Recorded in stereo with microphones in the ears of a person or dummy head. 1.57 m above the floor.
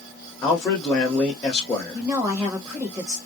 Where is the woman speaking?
20° right (ahead or behind), 0.9 m.